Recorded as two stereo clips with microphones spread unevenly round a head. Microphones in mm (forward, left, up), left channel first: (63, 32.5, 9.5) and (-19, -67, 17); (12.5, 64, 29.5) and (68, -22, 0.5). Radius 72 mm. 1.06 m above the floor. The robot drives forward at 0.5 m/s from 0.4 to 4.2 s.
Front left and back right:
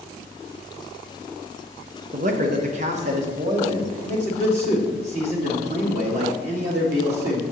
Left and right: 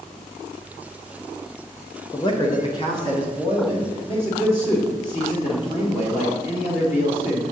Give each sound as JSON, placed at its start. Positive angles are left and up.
{"t": 2.1, "sound": "a man speaking", "azimuth_deg": -175, "distance_m": 0.7}